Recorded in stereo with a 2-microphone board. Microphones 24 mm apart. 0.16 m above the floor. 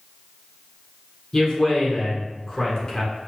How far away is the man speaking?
About 1.2 m.